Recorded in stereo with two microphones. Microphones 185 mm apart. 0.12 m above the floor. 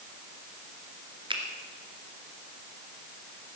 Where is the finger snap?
25° right (ahead or behind), 1.8 m.